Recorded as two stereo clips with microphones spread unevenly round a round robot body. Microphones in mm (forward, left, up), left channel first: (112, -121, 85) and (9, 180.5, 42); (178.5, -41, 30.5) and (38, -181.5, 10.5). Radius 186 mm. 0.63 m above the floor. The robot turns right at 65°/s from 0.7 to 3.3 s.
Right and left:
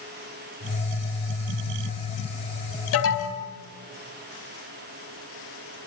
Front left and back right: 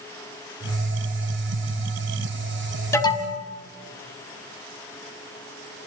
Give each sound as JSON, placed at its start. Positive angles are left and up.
{"t": 2.9, "sound": "an alarm", "azimuth_deg": -30, "distance_m": 4.5}